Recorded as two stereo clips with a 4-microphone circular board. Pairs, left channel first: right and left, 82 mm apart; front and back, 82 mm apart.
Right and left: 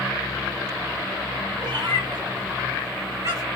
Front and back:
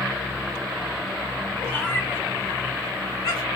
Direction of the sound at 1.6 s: 70° left.